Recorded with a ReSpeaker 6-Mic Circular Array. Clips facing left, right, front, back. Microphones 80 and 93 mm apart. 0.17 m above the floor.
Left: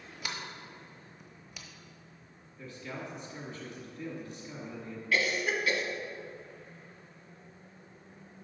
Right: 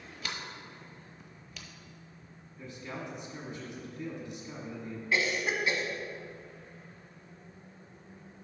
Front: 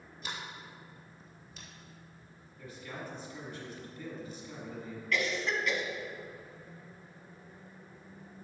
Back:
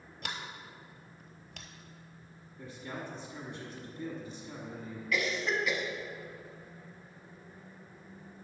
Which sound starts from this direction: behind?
A sliding door, at 0.2 s.